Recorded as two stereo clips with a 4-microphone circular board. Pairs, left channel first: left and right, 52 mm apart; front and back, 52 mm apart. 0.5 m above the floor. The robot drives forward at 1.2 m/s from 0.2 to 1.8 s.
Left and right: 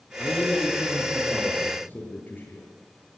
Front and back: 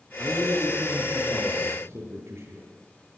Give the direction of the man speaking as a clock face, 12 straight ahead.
7 o'clock.